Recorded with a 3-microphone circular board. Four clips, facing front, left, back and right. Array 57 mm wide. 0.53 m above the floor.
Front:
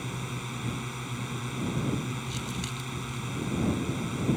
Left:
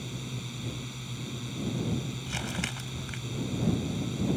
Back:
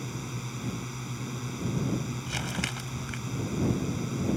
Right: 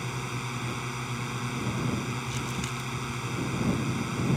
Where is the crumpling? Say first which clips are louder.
Right 1 dB, back 2 dB; 150° left.